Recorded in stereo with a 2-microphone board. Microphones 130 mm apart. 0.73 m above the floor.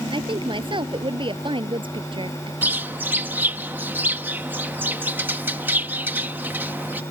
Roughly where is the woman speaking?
Right.